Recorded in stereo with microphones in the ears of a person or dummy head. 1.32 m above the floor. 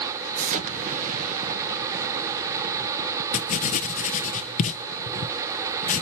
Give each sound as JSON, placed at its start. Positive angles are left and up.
{"t": 0.4, "sound": "an explosion", "side_deg": -40, "distance_m": 1.0}
{"t": 3.3, "sound": "writing", "side_deg": 45, "distance_m": 0.5}